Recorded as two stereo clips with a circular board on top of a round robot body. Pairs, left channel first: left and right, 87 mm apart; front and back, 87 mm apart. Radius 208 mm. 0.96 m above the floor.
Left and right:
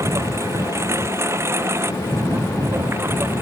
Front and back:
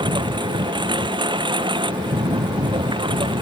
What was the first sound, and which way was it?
A lawn mower, 150° right.